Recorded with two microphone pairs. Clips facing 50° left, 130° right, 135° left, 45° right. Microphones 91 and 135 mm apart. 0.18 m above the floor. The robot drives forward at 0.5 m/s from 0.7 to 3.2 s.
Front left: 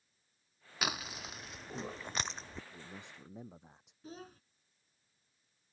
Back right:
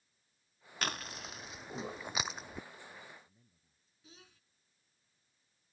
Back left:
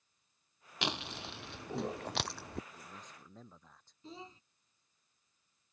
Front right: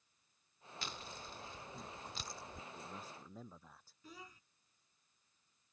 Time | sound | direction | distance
0.8 | chewing | 135° left | ?
2.7 | a man speaking | 40° left | ?
4.0 | a child speaking | 80° left | ?